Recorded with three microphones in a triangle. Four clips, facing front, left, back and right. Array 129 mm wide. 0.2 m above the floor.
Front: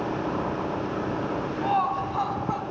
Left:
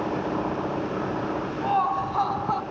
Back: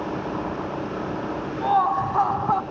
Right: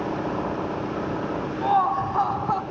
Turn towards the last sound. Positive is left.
turn(degrees=-175)